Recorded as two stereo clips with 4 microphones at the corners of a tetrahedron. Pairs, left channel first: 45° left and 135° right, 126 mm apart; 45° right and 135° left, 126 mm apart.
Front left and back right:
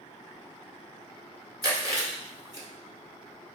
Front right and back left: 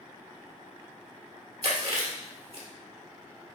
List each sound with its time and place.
1.6 s chewing: 170° left, 1.8 m